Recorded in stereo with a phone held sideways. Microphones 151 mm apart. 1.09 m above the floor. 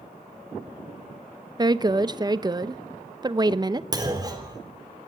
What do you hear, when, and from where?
1.6 s a woman speaking: 25° right (ahead or behind), 0.8 m
3.9 s a clunk: 25° right (ahead or behind), 3.5 m